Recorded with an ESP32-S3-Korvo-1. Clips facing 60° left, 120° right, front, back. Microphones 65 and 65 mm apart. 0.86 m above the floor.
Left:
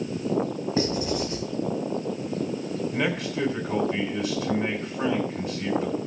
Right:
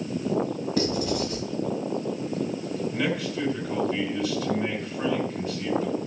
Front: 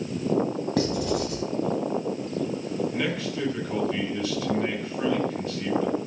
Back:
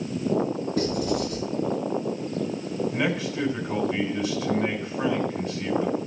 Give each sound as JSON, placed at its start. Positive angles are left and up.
{"t": 0.8, "sound": "writing", "azimuth_deg": -5, "distance_m": 2.5}
{"t": 2.9, "sound": "a man speaking", "azimuth_deg": 105, "distance_m": 2.0}